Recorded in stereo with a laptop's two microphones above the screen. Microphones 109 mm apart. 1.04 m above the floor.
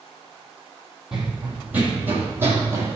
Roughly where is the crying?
I don't hear crying.